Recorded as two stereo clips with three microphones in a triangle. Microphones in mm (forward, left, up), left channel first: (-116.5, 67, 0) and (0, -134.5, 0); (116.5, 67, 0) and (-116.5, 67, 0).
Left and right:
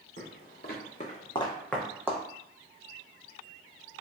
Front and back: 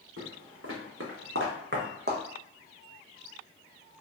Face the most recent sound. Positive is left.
turn(degrees=-135)